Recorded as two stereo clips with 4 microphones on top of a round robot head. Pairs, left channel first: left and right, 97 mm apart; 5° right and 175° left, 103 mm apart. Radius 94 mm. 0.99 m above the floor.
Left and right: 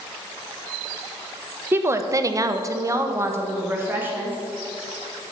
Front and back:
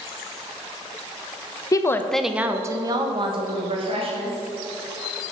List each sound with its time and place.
1.7 s a woman speaking: 35° right, 0.7 m; by 4.4 s 160° right, 2 m